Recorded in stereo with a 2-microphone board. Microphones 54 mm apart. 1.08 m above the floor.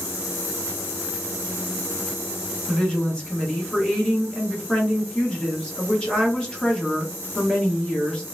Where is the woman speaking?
15° left (ahead or behind), 1.1 m.